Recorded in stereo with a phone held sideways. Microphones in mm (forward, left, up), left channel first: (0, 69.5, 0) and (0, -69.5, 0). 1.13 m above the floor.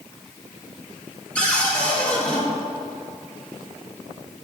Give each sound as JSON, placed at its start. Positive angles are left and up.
{"t": 1.4, "sound": "a cupboard door", "side_deg": 5, "distance_m": 1.8}